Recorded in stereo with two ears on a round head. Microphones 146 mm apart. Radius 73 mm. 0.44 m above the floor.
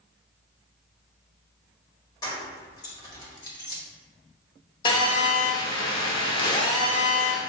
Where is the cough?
I don't hear a cough.